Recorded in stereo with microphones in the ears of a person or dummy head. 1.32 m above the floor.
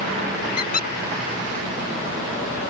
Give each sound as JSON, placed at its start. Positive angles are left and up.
{"t": 0.6, "sound": "a squeak", "side_deg": 45}